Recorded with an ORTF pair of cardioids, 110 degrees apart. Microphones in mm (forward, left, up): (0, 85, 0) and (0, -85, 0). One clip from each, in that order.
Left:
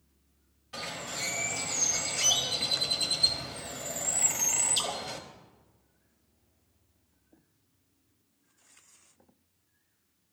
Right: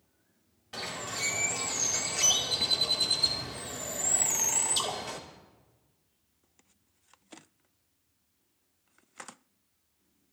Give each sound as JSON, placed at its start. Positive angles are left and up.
{"t": 0.7, "sound": "a bird", "azimuth_deg": -20, "distance_m": 2.5}